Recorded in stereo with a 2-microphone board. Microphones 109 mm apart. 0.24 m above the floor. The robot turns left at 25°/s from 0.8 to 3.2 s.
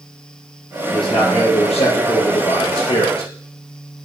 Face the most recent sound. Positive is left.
turn(degrees=70)